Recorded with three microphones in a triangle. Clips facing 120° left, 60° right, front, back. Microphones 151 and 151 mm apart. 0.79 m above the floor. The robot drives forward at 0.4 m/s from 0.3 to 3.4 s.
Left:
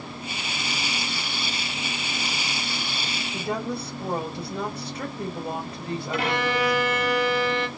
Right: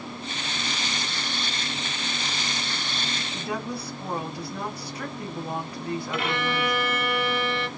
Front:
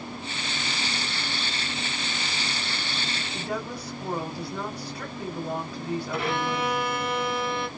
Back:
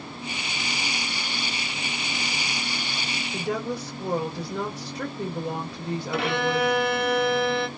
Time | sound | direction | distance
3.3 | a woman speaking | straight behind | 1.6 m
6.1 | a violin | 170° left | 1.0 m